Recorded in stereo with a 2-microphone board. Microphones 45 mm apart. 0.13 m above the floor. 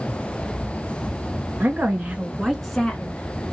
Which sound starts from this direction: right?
A woman speaking, at 1.6 s.